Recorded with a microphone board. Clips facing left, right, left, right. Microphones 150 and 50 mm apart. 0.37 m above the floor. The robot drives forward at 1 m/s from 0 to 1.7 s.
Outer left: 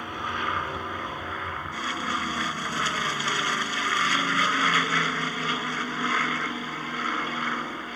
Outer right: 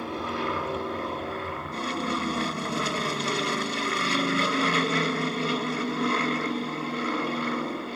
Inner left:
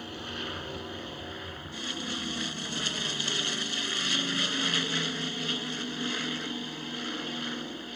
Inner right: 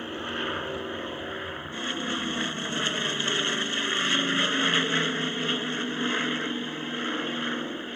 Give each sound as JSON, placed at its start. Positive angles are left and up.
{"t": 0.0, "sound": "an aircraft", "side_deg": -30}